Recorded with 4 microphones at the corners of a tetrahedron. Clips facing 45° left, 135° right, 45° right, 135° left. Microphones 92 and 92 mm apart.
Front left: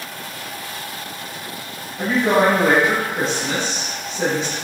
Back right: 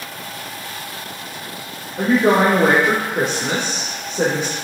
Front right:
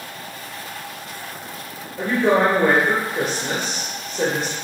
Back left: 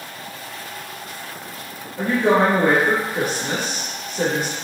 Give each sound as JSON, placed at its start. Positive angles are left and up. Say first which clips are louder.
{"t": 2.0, "sound": "a woman speaking", "louder": "back right 2 dB, even", "azimuth_deg": -150, "distance_m": 2.5}